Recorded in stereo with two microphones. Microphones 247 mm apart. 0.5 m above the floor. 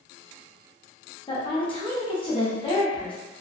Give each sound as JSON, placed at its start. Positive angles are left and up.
{"t": 1.3, "sound": "a woman speaking", "side_deg": 20, "distance_m": 0.8}